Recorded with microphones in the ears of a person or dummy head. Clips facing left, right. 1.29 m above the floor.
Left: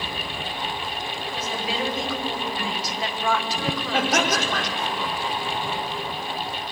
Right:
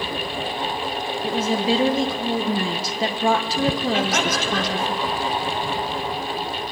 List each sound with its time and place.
1.2 s a woman speaking: 35° right (ahead or behind), 1.1 m
3.9 s laughter: 40° left (ahead or behind), 4.5 m